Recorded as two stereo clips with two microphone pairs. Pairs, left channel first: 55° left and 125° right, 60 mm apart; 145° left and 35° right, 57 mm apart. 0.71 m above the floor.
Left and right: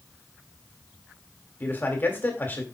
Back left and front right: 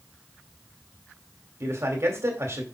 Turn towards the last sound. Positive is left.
turn(degrees=0)